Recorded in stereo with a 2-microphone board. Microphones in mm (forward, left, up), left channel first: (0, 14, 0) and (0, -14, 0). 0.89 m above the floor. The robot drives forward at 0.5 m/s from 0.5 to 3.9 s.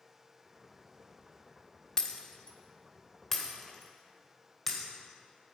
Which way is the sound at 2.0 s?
25° left (ahead or behind).